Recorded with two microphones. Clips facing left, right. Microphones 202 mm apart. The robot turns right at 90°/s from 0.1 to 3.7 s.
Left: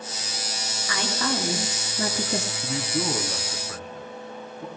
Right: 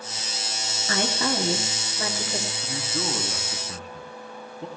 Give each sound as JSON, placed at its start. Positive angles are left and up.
{"t": 0.9, "sound": "a woman speaking", "azimuth_deg": -50, "distance_m": 2.5}
{"t": 2.6, "sound": "a man speaking", "side_deg": 30, "distance_m": 1.9}